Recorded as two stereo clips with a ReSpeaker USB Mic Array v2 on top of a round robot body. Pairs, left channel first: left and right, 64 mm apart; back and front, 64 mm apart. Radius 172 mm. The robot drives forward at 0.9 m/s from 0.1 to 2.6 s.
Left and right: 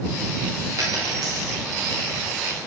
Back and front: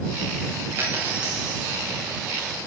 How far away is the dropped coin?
About 1.7 m.